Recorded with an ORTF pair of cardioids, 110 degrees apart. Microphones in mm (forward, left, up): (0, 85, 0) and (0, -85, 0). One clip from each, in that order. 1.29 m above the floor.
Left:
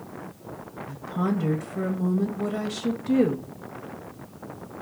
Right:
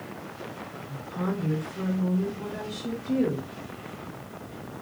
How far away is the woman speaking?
About 0.7 m.